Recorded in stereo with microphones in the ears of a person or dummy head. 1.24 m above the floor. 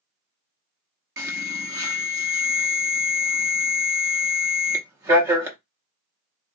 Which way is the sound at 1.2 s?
20° right (ahead or behind).